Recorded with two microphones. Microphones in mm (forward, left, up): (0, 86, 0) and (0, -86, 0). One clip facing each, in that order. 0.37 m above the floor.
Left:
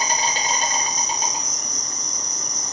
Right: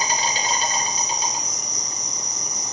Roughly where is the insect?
Left.